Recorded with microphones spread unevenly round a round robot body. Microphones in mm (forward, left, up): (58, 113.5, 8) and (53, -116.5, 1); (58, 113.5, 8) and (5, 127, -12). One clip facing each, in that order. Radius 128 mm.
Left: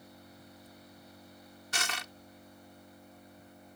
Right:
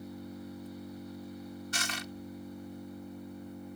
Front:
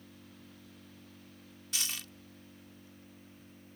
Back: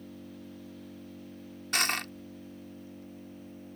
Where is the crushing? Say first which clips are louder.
Right 3 dB, back 11 dB; 135° left.